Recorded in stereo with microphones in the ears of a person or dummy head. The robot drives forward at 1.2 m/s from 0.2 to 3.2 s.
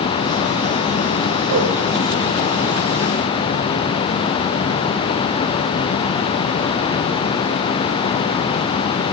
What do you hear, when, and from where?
1.5 s a whoosh: 70° right (ahead or behind), 0.6 m; by 1.7 s 55° right (ahead or behind), 0.7 m